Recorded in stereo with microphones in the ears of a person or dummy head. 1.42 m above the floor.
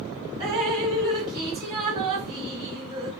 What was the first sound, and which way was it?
Dripping, 20° right (ahead or behind).